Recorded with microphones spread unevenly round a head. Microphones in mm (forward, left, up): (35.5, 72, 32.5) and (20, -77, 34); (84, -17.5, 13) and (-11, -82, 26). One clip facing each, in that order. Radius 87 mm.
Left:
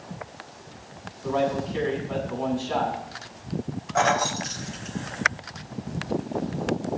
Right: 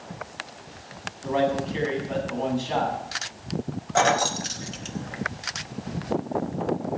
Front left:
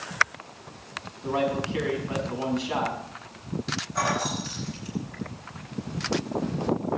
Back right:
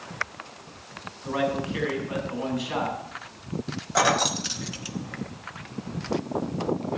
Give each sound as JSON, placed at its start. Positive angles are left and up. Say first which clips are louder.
{"t": 1.2, "sound": "a man speaking", "louder": "right 1 dB, even", "azimuth_deg": -25, "distance_m": 7.0}
{"t": 4.0, "sound": "keys jangling", "louder": "right 1 dB, back right 5 dB", "azimuth_deg": -160, "distance_m": 1.0}